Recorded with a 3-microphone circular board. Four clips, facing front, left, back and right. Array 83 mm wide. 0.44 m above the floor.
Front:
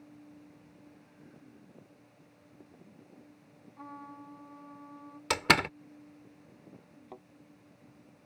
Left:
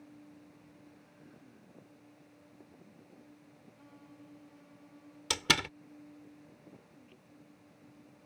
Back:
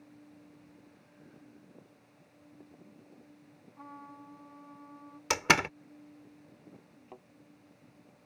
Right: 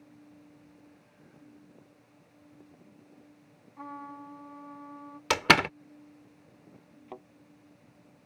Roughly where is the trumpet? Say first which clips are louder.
Right 16 dB, front 2 dB; right.